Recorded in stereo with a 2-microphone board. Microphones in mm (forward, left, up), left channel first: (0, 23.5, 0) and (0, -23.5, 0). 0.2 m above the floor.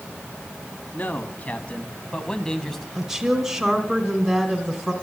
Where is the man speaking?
40° left (ahead or behind), 2.0 m; by 2.9 s 5° left (ahead or behind), 1.7 m.